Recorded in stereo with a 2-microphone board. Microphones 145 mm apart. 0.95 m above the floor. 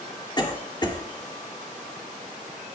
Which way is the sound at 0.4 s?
30° left (ahead or behind).